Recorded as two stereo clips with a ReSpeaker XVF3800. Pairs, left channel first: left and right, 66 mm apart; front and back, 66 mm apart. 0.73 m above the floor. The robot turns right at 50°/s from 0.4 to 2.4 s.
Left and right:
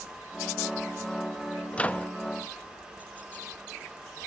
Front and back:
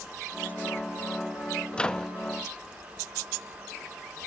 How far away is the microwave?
About 0.6 m.